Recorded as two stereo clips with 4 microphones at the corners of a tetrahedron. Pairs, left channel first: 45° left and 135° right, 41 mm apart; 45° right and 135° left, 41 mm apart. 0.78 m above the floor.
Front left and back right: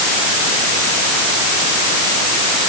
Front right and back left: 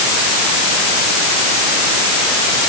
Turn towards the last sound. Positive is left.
No sound to turn to.